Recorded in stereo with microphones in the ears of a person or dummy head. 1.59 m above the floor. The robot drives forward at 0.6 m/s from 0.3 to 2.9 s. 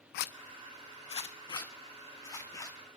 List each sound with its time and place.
0.1 s a zipper: 50° left (ahead or behind), 0.6 m; by 2.8 s 15° left (ahead or behind), 1.9 m